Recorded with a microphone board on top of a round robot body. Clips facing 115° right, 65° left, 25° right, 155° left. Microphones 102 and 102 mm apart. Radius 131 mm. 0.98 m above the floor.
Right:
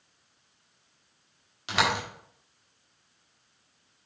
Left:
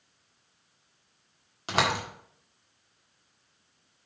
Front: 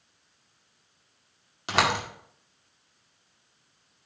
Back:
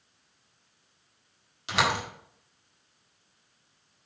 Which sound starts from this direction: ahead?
A door slam, at 1.7 s.